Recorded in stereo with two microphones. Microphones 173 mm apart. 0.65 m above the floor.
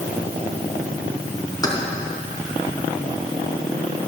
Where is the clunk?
I don't hear a clunk.